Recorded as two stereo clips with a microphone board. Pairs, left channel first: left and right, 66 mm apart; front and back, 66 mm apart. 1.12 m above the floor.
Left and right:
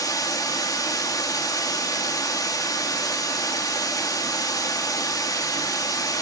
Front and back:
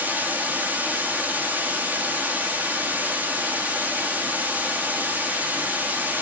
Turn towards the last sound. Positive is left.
turn(degrees=115)